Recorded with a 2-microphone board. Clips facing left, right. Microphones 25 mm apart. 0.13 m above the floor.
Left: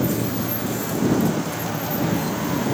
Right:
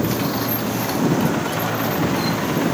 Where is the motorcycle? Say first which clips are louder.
Right 2 dB; 45° right (ahead or behind); by 2.8 s 50° right (ahead or behind).